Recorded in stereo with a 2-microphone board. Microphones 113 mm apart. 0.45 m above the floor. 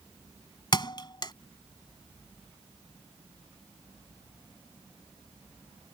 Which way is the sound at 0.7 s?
40° left (ahead or behind).